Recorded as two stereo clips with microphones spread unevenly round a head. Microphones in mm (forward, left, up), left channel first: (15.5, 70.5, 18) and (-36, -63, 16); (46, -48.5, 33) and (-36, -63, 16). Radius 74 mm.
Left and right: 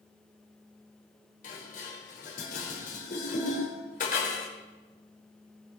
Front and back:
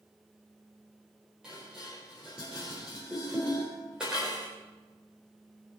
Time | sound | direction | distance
1.4 | dishes clattering | 105° left | 4 m